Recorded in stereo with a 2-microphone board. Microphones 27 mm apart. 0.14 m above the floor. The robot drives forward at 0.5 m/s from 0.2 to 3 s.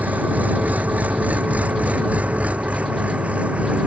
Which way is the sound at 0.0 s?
70° right (ahead or behind).